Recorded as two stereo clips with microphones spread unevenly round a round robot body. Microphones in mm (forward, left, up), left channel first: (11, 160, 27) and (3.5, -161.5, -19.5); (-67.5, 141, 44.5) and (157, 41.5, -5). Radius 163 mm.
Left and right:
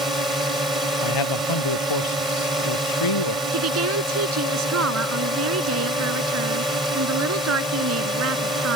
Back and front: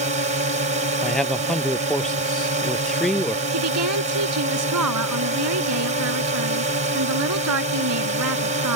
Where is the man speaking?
70° left.